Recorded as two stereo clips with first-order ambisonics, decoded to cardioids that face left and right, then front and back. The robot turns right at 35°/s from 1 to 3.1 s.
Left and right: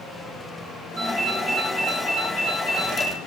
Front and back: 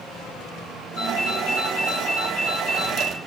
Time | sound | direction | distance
1.0 | a ringtone | 40° right | 1.5 m